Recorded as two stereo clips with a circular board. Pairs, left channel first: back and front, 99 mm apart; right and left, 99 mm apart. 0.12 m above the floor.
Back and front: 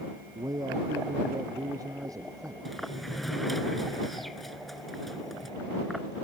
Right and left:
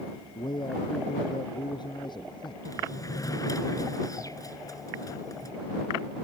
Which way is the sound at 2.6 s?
90° right.